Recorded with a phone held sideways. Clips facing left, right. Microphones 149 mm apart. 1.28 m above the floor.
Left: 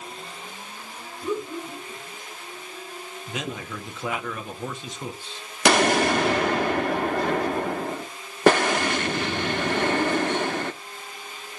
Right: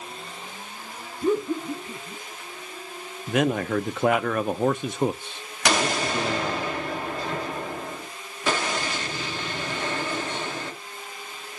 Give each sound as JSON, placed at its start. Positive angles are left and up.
{"t": 1.2, "sound": "laughter", "side_deg": -55, "distance_m": 3.0}
{"t": 3.3, "sound": "a man speaking", "side_deg": -60, "distance_m": 0.6}
{"t": 5.7, "sound": "an explosion", "side_deg": 60, "distance_m": 1.2}